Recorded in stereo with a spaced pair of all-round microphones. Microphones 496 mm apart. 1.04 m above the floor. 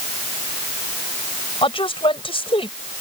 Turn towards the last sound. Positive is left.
turn(degrees=10)  # may be behind; listen again after turning